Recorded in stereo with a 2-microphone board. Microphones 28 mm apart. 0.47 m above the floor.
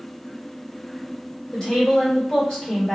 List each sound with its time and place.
1.5 s a woman speaking: 25° left (ahead or behind), 1.7 m